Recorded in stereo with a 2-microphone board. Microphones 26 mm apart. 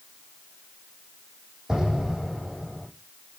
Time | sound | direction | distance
1.7 | an explosion | 25° right (ahead or behind) | 5.5 m